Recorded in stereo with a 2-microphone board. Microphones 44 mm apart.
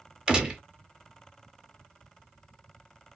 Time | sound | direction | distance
0.3 | a gunshot | 20° right (ahead or behind) | 0.9 m